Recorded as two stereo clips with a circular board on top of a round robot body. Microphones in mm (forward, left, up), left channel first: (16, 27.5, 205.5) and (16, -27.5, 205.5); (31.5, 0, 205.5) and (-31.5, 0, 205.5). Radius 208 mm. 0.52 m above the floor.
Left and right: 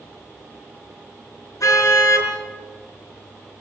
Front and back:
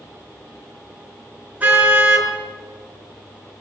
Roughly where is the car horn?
Behind left.